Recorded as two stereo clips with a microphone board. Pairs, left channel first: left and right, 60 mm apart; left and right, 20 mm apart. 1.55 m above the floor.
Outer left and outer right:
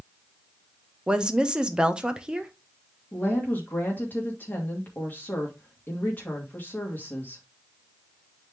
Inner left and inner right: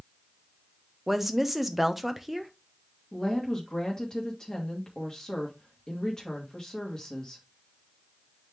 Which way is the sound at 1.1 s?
15° right (ahead or behind).